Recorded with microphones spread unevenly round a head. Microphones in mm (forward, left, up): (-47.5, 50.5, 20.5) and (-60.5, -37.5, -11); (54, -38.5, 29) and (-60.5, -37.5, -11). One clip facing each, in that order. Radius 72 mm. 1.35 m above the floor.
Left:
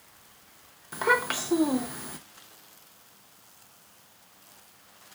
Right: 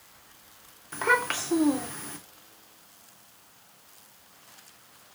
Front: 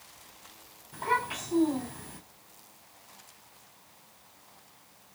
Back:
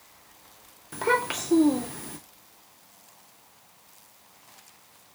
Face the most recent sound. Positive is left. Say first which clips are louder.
# even, back 5 dB
turn(degrees=150)